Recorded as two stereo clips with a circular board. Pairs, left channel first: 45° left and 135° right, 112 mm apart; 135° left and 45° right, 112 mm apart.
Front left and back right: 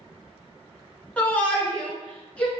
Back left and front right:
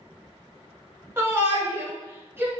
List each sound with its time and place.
1.2 s a shout: 15° right, 1.2 m